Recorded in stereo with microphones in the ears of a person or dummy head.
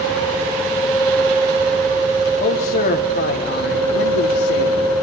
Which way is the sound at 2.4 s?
40° left (ahead or behind).